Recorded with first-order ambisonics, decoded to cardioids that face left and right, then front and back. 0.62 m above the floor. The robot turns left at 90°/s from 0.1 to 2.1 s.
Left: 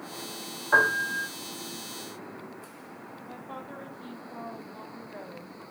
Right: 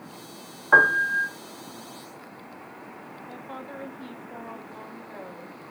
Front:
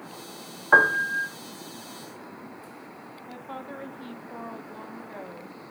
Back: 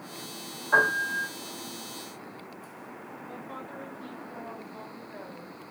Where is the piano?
25° right, 0.6 m; by 1.3 s 80° right, 0.6 m.